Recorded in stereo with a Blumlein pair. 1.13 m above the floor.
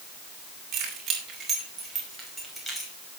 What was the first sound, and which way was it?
Keys jangling, 30° right.